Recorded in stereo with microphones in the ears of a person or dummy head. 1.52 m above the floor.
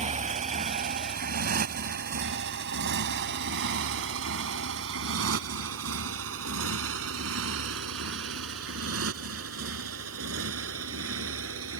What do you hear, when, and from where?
0.0 s a motorcycle: 35° right (ahead or behind); by 11.8 s 75° right (ahead or behind)